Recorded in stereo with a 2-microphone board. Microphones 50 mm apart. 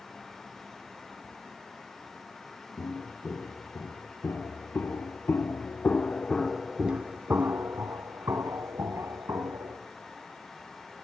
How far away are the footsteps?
About 3 m.